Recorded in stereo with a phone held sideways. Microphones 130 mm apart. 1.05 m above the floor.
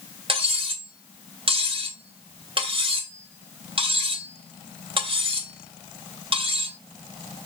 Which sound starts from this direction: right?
Cutlery clinking, at 0.3 s.